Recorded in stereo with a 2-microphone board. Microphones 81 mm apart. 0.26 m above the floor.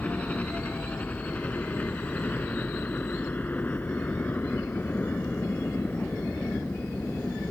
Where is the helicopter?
20° left (ahead or behind); by 7.5 s 25° left (ahead or behind).